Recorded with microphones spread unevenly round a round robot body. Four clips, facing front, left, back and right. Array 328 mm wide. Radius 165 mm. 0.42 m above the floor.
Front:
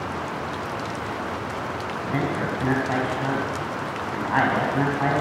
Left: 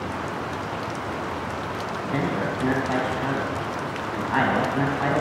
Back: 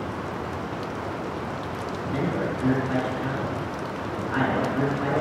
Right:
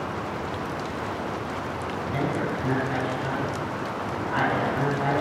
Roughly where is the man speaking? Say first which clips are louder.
Left 2 dB, front 1 dB; ahead left.